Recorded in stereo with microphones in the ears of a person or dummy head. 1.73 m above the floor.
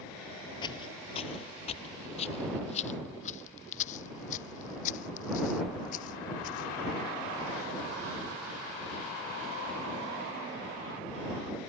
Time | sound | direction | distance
0.6 | footsteps | 30° left (ahead or behind) | ?